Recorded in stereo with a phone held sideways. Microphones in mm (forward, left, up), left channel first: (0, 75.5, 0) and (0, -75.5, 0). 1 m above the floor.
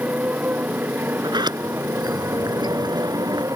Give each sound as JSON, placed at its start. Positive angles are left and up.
{"t": 0.0, "sound": "a motorcycle", "side_deg": -10}
{"t": 1.2, "sound": "a sliding door", "side_deg": -30}